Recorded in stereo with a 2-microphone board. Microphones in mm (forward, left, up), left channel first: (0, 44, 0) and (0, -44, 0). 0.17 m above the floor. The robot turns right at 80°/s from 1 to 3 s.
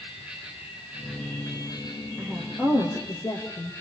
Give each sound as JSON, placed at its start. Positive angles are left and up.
{"t": 0.0, "sound": "an insect", "azimuth_deg": -15, "distance_m": 5.5}
{"t": 2.2, "sound": "a woman speaking", "azimuth_deg": -15, "distance_m": 4.5}